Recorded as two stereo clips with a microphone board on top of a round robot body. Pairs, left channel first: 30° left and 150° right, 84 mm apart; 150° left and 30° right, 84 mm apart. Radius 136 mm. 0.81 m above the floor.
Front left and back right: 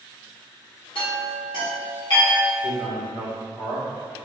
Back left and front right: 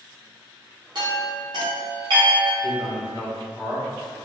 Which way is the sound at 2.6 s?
30° left.